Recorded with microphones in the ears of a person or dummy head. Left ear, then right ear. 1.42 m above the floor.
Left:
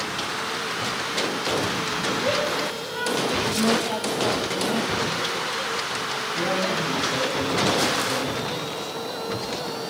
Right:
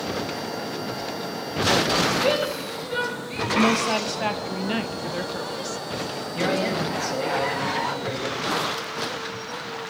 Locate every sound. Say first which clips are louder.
2.2 s a shout: even; 75° right (ahead or behind), 3 m
3.5 s a woman speaking: right 2 dB; 60° right (ahead or behind), 1.6 m
6.3 s a man speaking: right 2 dB; 60° right (ahead or behind), 7.5 m